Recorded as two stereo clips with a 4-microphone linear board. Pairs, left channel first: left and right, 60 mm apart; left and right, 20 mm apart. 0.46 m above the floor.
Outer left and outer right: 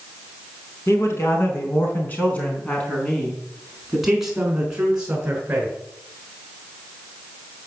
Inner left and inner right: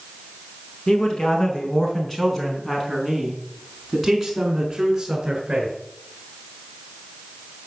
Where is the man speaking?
45° left (ahead or behind), 5.5 m; by 5.8 s 25° right (ahead or behind), 6.5 m.